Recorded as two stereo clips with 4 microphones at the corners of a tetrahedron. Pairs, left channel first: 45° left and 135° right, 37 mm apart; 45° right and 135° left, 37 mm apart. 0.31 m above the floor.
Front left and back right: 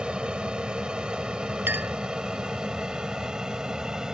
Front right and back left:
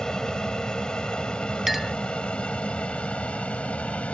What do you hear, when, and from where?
0.0 s an aircraft: 100° right; by 4.1 s 70° right
1.7 s a clink: 140° right